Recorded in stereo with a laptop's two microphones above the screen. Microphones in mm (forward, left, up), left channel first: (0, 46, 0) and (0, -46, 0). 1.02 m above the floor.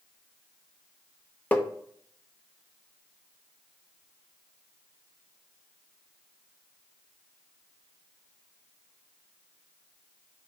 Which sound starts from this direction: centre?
Tapping, at 1.5 s.